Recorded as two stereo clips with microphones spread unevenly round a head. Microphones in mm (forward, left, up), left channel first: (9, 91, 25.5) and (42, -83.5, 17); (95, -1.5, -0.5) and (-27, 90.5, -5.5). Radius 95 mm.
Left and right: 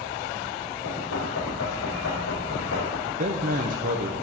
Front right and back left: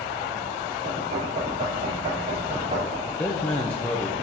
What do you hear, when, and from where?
0.8 s knocking: 95° left, 3 m
3.1 s a man speaking: 110° right, 0.5 m